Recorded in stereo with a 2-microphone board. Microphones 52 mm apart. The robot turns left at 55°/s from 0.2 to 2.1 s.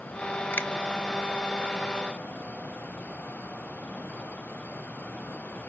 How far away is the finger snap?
About 0.6 m.